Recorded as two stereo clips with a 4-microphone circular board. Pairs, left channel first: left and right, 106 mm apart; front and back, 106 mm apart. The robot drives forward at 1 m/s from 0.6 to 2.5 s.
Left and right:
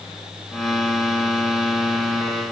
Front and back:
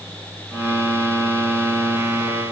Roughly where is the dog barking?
No dog barking in this recording.